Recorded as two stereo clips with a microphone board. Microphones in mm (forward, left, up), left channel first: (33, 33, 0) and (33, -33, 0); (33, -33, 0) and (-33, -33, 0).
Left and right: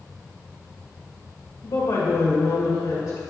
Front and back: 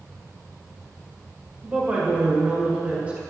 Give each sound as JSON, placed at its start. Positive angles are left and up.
{"t": 1.6, "sound": "a woman speaking", "azimuth_deg": 110, "distance_m": 1.9}